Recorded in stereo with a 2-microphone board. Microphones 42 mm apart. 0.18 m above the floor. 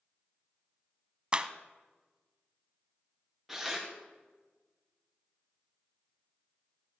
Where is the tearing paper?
5° right (ahead or behind), 4.5 m.